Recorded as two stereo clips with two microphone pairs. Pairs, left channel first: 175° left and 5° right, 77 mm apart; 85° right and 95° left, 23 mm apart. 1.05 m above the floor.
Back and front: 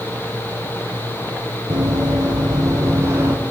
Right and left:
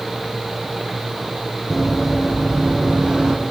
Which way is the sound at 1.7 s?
5° left.